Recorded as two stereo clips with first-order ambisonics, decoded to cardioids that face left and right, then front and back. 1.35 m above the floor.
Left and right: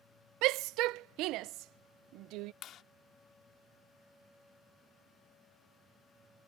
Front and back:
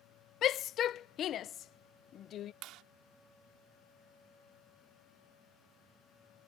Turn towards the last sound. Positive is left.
turn(degrees=145)